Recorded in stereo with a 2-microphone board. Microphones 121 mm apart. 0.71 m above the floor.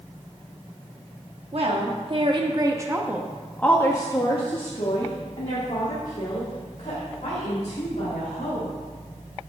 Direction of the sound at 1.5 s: 55° right (ahead or behind).